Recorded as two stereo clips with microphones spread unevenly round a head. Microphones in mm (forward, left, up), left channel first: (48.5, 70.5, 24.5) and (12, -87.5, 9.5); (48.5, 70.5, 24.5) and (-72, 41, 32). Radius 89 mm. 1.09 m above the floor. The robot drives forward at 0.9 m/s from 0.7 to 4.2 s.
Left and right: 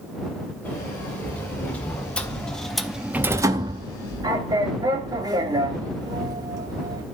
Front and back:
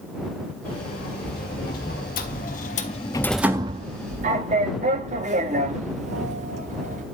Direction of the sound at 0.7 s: Straight ahead.